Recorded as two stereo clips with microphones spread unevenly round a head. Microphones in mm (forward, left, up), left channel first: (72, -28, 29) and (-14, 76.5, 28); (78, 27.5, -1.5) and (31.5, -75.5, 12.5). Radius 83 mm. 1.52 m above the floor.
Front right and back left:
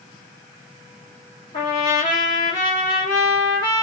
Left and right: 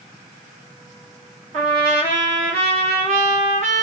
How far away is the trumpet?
About 2 m.